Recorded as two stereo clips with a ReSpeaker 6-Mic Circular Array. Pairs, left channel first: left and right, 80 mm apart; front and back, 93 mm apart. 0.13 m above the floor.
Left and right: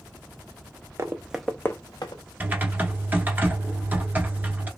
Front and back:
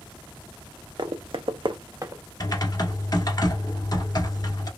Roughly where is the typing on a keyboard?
Ahead right.